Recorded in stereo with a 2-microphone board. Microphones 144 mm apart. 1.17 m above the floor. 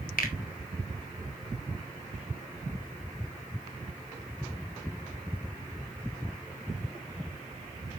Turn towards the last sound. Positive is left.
turn(degrees=80)